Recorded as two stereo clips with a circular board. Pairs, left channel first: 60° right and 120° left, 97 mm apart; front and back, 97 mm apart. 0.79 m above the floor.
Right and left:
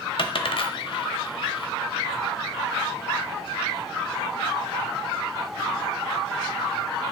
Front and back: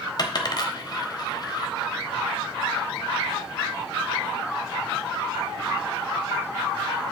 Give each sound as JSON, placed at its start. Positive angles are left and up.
{"t": 0.2, "sound": "a dropped coin", "azimuth_deg": -40, "distance_m": 0.9}